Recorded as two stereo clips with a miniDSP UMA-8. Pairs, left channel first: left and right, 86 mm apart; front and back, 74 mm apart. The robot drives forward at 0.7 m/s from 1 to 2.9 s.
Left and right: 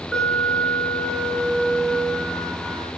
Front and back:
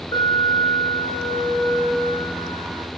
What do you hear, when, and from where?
0.1 s an alarm: 5° left, 5.5 m; by 2.9 s 10° left, 4.5 m